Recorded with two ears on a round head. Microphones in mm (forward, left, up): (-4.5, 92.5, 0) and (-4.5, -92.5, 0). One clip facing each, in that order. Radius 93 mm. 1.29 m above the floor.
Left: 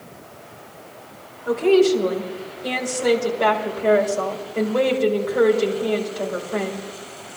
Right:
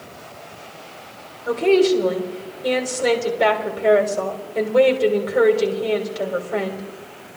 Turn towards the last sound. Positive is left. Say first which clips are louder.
# even
turn(degrees=-30)  # may be behind; listen again after turning